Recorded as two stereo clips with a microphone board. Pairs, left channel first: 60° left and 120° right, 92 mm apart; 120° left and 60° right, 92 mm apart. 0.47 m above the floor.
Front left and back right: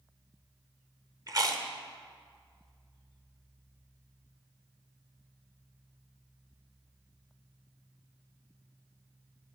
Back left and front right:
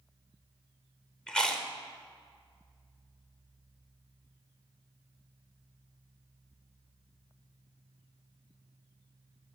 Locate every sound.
1.3 s chewing: 160° right, 0.9 m